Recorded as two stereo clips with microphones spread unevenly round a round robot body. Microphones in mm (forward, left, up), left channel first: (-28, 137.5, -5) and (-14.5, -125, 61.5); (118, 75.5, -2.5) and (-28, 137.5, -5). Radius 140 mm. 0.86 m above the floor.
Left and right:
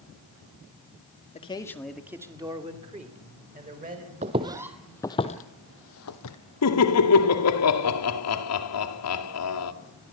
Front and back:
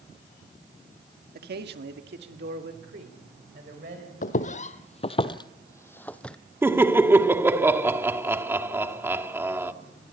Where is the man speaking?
150° left, 1.5 m; by 4.1 s 145° right, 4.5 m.